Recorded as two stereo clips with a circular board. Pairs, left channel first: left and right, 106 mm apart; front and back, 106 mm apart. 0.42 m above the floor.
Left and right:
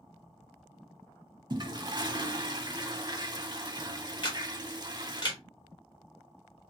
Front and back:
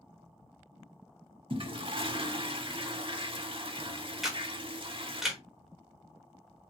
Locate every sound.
1.5 s a toilet flushing: 140° right, 0.6 m
4.2 s a camera shutter: 95° left, 1.4 m